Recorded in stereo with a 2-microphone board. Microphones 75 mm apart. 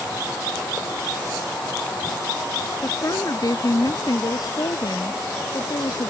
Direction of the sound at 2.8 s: 50° left (ahead or behind).